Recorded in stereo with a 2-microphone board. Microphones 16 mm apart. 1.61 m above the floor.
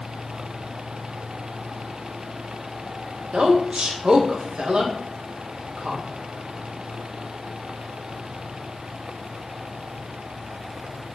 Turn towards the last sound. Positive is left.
turn(degrees=-75)  # may be behind; listen again after turning